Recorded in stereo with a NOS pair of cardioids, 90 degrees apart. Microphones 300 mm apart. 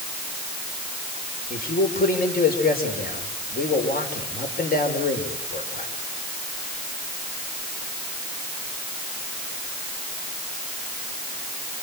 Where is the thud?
I don't hear a thud.